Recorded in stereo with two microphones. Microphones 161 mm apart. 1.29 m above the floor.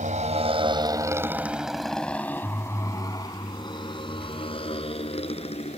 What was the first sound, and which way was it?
A motorcycle, 50° right (ahead or behind).